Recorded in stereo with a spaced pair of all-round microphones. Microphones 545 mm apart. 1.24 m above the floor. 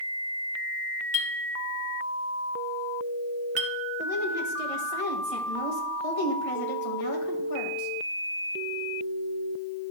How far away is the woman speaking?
About 1.6 m.